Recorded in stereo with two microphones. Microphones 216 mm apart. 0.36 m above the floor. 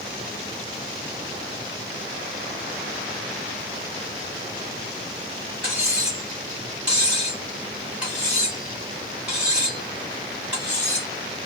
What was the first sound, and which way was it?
Cutlery clinking, 5° right (ahead or behind).